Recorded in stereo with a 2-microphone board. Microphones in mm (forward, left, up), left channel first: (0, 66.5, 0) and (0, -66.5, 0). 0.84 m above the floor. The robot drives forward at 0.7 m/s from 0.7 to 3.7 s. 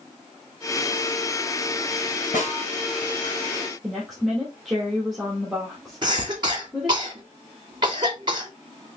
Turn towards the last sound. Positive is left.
turn(degrees=-35)  # may be behind; listen again after turning